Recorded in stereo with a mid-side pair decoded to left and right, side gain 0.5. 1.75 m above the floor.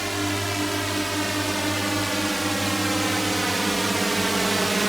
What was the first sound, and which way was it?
A drone, 5° right.